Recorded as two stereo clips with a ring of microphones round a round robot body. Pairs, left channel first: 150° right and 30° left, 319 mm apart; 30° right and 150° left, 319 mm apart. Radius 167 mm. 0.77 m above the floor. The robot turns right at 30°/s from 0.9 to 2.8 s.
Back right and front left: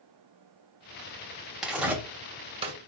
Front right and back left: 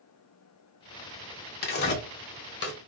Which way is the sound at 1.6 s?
55° right.